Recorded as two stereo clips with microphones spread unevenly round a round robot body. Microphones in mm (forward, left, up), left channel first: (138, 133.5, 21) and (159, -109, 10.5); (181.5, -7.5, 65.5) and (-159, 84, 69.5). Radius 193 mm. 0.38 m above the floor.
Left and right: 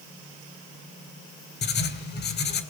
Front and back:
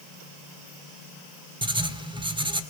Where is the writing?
95° left, 1.8 m.